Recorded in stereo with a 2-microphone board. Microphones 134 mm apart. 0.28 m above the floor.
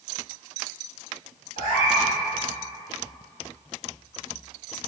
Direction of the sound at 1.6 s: 60° left (ahead or behind).